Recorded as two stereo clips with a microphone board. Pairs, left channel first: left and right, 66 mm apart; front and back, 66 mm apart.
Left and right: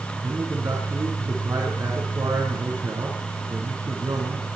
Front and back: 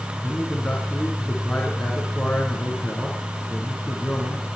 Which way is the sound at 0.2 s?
85° right.